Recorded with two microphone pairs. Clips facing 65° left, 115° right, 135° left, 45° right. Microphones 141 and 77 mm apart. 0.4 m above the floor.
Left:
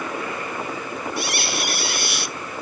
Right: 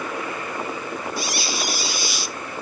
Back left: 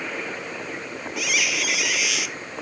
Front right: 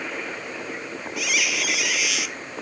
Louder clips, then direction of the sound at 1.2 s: Left 1 dB, even; 40° left.